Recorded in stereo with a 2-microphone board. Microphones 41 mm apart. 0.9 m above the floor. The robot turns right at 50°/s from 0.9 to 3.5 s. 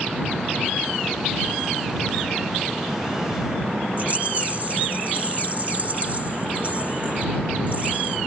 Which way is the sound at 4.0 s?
35° right (ahead or behind).